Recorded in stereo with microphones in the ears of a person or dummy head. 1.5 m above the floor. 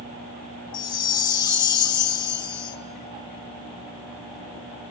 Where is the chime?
25° left (ahead or behind), 0.6 m.